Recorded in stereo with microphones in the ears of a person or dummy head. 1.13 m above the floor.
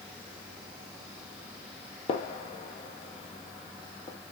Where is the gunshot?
30° left (ahead or behind), 0.6 m.